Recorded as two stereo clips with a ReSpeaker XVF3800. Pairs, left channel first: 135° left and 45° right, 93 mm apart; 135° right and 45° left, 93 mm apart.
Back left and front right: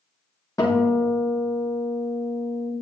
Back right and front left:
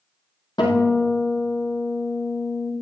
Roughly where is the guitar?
Behind.